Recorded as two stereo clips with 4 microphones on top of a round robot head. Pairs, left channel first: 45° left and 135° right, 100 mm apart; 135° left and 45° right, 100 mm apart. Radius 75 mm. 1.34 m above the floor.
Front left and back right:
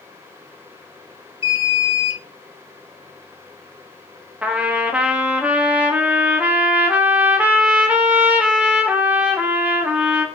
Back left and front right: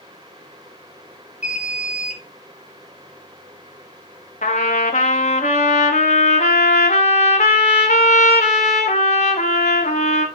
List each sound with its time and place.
1.4 s an alarm: 35° left, 1.7 m
4.4 s a trumpet: 145° left, 0.9 m